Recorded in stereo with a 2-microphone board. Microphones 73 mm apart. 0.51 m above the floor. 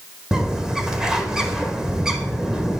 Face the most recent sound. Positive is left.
turn(degrees=-10)  # may be behind; listen again after turning